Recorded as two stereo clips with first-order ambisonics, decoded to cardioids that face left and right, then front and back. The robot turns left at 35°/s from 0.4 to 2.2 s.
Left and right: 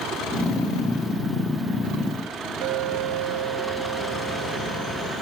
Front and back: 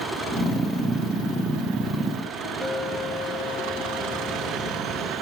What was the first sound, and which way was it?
A clink, 75° right.